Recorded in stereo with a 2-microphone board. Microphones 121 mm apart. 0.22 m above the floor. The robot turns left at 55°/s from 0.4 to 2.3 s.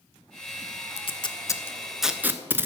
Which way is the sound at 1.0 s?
55° left (ahead or behind).